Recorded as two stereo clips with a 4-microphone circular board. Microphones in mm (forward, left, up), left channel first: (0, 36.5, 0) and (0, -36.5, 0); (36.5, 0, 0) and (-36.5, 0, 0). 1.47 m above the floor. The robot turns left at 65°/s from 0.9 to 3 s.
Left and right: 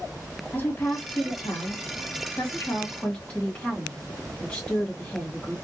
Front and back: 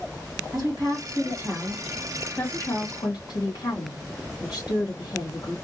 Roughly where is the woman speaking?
Behind left.